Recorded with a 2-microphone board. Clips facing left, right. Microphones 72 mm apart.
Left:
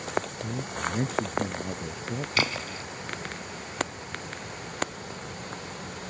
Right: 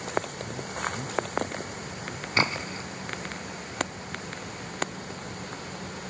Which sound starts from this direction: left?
A man speaking, at 0.4 s.